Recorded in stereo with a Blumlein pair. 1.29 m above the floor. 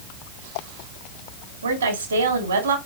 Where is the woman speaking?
65° right, 3 m.